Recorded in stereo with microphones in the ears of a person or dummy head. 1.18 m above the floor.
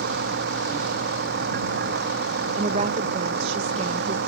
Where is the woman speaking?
35° right (ahead or behind).